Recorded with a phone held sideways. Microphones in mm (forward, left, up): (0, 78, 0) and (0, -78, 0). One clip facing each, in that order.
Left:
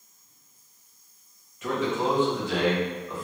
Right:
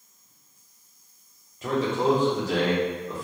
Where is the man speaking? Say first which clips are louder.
Right 3 dB; 30° right (ahead or behind), 1.0 m; by 3.2 s 35° right (ahead or behind), 1.3 m.